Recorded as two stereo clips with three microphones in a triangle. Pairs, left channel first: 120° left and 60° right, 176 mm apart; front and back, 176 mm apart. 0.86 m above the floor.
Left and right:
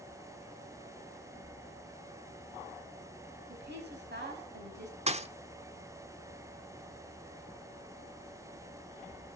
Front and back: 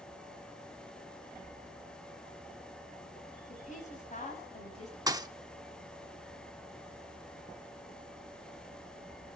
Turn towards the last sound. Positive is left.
turn(degrees=-110)